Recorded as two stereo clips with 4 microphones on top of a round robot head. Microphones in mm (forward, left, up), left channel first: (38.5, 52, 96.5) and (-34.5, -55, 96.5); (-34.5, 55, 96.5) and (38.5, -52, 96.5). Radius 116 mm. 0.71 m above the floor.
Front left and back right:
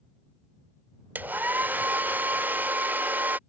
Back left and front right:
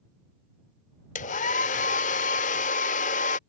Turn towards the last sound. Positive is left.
turn(degrees=160)